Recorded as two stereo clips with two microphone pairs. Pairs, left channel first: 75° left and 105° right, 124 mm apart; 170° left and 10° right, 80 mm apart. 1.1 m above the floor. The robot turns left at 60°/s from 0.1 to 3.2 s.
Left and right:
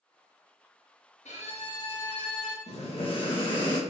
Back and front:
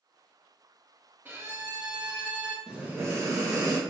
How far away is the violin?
About 1.1 m.